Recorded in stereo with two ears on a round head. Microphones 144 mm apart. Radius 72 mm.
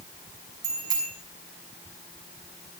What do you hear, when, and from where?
0.6 s a bicycle bell: 25° right (ahead or behind), 6.5 m